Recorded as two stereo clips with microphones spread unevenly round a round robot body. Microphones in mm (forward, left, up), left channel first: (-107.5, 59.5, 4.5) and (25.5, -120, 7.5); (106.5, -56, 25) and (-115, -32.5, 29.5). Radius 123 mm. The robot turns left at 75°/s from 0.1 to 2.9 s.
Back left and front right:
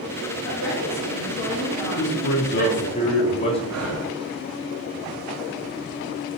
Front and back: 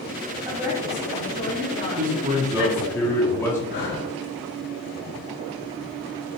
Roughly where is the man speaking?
Behind left.